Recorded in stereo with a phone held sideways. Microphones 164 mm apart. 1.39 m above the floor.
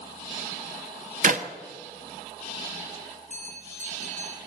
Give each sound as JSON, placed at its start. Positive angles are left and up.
{"t": 1.2, "sound": "a clap", "side_deg": -60, "distance_m": 1.0}
{"t": 3.3, "sound": "a bell", "side_deg": -50, "distance_m": 2.0}